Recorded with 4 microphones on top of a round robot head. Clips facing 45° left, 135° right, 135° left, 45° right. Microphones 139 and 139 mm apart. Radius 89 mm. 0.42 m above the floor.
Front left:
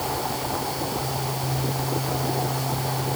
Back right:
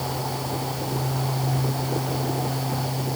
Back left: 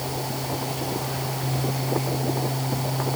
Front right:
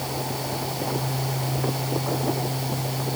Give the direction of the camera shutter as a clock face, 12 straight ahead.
I don't hear a camera shutter.